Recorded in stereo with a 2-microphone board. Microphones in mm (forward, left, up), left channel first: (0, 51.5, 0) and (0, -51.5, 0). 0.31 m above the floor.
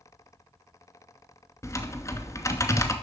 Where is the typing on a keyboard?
30° left (ahead or behind), 0.7 m.